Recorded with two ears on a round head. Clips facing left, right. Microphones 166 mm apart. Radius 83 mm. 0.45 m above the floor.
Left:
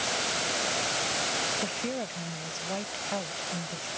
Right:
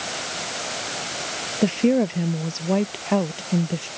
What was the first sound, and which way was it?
A woman speaking, 75° right (ahead or behind).